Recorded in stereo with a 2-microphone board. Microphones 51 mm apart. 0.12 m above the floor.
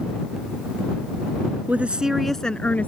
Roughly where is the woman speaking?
Right.